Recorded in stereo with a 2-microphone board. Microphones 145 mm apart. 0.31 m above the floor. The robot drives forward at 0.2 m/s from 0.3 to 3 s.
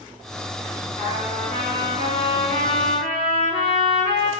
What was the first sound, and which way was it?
A trumpet, 50° left (ahead or behind).